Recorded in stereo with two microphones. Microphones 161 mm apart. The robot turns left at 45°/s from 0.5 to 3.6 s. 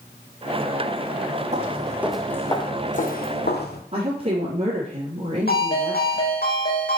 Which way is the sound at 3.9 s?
45° right (ahead or behind).